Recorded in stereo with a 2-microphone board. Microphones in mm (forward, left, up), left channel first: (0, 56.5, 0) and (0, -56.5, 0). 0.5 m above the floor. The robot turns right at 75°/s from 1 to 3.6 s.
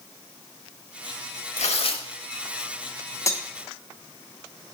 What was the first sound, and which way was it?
Tearing paper, 100° left.